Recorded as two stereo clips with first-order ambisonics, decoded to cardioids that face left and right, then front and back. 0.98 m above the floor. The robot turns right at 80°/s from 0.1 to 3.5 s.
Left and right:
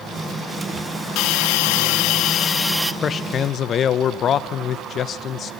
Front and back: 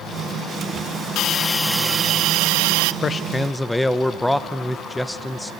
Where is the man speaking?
45° left, 0.7 m; by 5.5 s 85° left, 0.7 m.